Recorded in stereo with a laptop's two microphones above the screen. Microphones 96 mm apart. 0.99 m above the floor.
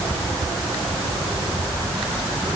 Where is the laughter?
I don't hear laughter.